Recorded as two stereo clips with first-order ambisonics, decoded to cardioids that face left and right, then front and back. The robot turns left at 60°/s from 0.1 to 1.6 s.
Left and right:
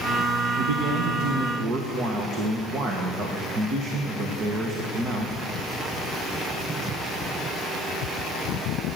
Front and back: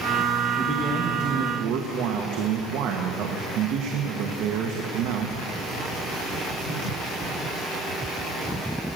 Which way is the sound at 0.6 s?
85° right.